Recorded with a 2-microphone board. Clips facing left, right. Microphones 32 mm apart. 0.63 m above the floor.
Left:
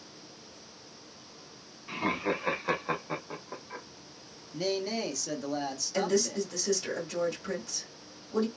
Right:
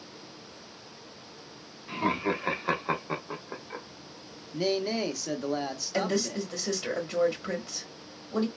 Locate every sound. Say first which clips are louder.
1.9 s laughter: right 2 dB; centre (ahead or behind), 1.1 m; by 3.9 s 20° right (ahead or behind), 0.8 m
4.5 s a man speaking: right 3 dB; 20° right (ahead or behind), 0.6 m
5.9 s a woman speaking: left 1 dB; 20° right (ahead or behind), 1.1 m